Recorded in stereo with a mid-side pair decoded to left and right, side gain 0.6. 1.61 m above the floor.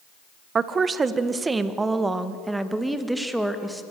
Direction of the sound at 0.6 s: 35° right.